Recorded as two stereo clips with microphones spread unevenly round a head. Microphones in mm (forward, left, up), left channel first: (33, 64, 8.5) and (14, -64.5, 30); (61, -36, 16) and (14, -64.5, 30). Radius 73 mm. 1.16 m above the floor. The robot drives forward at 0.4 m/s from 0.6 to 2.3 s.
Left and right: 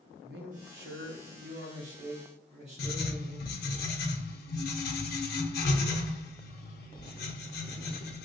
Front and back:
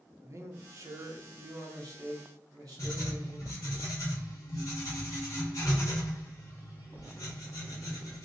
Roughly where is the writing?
Left.